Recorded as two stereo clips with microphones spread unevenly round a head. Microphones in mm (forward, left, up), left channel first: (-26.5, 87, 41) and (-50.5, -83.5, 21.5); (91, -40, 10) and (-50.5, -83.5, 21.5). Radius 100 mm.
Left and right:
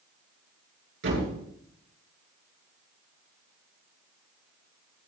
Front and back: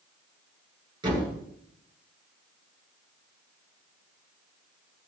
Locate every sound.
1.0 s a thud: 105° right, 8.5 m